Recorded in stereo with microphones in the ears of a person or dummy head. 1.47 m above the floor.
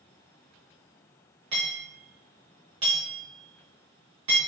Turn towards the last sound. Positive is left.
turn(degrees=-25)  # may be behind; listen again after turning